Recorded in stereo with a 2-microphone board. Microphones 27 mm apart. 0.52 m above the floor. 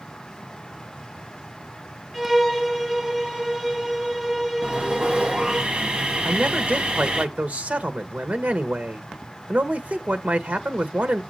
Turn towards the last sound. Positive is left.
turn(degrees=-65)  # may be behind; listen again after turning